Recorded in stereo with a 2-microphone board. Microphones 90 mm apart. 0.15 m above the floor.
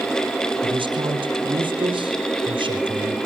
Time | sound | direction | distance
0.6 | a man speaking | 60° right (ahead or behind) | 4 m